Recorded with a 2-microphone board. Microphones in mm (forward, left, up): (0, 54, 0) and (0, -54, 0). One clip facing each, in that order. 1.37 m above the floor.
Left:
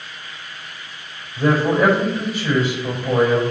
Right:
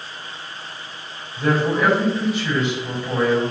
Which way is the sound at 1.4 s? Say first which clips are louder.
Left 3 dB; 45° left (ahead or behind).